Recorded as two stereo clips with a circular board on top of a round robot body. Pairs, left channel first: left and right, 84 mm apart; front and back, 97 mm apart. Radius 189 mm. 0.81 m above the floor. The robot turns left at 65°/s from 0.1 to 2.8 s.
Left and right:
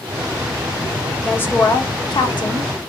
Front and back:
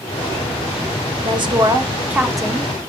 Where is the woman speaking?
160° left, 0.9 m; by 2.7 s 65° left, 0.9 m.